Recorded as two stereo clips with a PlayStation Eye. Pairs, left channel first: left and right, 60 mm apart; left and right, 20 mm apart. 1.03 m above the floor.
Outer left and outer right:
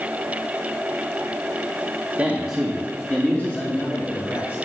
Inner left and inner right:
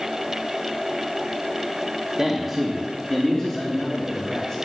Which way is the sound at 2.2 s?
20° right (ahead or behind).